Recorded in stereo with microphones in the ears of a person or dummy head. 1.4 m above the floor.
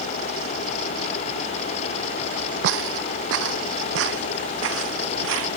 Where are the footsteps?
60° right (ahead or behind); by 5.5 s 70° right (ahead or behind).